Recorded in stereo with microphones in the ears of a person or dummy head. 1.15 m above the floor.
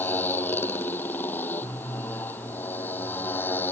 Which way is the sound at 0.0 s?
10° left (ahead or behind).